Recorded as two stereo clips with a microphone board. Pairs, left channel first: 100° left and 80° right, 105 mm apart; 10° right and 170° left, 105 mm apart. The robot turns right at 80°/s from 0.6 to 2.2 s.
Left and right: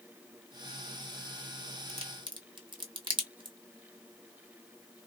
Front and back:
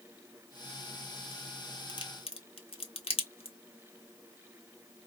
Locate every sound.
1.9 s a crack: 60° right, 0.9 m; by 3.6 s 35° right, 0.9 m